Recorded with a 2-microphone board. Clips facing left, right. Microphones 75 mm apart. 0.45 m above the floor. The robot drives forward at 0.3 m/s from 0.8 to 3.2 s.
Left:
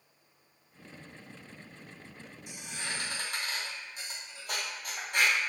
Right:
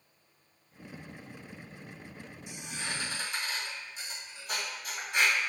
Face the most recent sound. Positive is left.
turn(degrees=55)  # may be behind; listen again after turning